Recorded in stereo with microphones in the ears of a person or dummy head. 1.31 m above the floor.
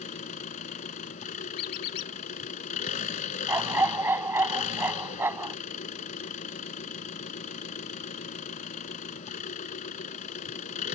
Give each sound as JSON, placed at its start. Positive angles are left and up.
{"t": 0.0, "sound": "an engine running", "side_deg": 45}
{"t": 1.6, "sound": "a squeak", "side_deg": 55}
{"t": 3.5, "sound": "a dog barking", "side_deg": -15}